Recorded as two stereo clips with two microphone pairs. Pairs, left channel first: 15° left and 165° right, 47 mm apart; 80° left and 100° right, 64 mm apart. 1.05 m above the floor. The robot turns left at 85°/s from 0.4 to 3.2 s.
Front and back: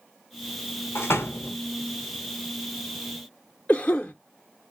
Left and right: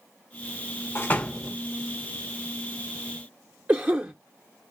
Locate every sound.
0.9 s a door slam: 30° left, 0.6 m; by 1.6 s 20° right, 0.6 m
3.7 s a cough: 45° right, 0.5 m